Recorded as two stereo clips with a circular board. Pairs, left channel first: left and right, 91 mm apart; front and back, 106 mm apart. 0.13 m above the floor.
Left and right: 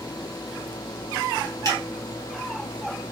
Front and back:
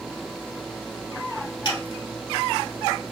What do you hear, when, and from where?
1.6 s a finger snap: 40° left, 2.5 m